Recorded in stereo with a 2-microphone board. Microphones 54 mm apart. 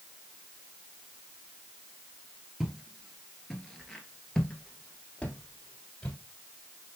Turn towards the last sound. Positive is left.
turn(degrees=25)  # may be behind; listen again after turning